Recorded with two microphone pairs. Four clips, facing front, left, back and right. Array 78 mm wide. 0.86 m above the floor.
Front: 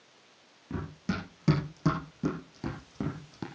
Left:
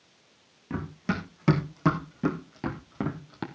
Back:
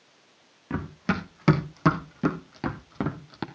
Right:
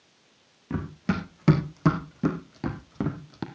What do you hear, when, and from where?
0.7 s running footsteps: 175° left, 2.5 m; by 3.5 s 165° left, 1.4 m